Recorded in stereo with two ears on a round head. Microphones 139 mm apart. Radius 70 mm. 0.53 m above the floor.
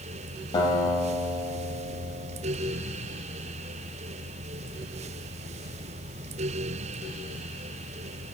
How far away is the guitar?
About 3.5 m.